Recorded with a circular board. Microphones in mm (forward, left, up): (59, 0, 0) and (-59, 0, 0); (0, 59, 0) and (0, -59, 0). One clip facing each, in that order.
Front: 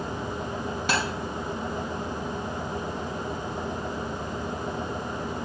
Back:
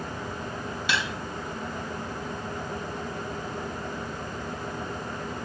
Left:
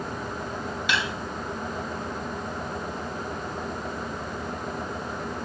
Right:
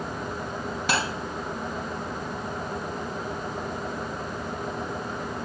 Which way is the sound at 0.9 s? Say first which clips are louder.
Front 2 dB, right 2 dB; 45° right.